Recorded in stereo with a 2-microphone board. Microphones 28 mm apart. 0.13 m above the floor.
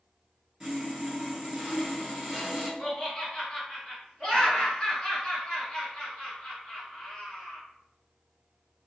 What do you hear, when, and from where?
0.6 s sawing: 10° right (ahead or behind), 1.8 m
2.8 s laughter: 25° left (ahead or behind), 1.7 m